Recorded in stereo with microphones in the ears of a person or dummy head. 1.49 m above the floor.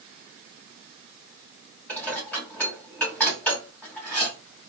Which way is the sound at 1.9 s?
10° left (ahead or behind).